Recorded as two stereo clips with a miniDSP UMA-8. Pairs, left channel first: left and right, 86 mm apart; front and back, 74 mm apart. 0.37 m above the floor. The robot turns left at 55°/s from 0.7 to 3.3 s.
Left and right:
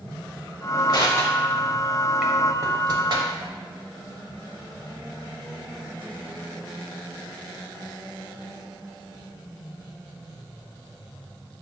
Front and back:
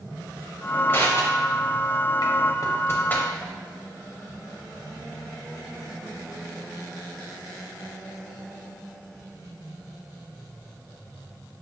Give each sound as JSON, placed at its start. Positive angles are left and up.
{"t": 0.9, "sound": "crushing", "azimuth_deg": 55, "distance_m": 0.7}